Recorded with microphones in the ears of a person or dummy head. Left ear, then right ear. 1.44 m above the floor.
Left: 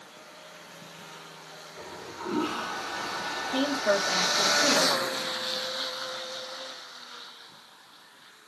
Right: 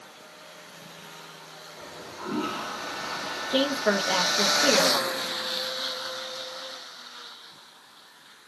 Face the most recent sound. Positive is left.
turn(degrees=-40)  # may be behind; listen again after turning